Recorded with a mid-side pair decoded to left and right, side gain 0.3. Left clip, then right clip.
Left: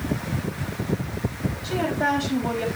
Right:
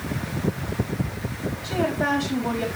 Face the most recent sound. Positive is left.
turn(degrees=0)